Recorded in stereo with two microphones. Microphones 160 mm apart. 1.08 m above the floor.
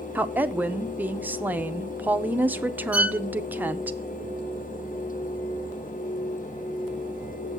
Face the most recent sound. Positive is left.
turn(degrees=-10)  # may be behind; listen again after turning